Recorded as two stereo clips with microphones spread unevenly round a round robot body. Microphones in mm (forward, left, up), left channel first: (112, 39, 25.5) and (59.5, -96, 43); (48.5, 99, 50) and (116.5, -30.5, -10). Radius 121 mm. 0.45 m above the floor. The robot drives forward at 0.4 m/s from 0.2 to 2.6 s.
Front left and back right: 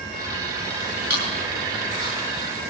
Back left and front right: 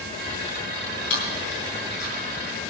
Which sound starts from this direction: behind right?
Chewing, at 1.1 s.